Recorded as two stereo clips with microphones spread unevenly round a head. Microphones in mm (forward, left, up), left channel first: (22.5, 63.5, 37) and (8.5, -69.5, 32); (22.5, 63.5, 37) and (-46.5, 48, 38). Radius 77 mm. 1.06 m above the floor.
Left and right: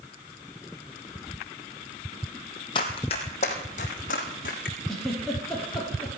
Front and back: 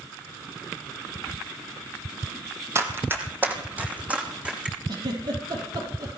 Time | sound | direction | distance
2.8 | running footsteps | 140° left | 2.5 m
4.9 | a giggle | 170° left | 6 m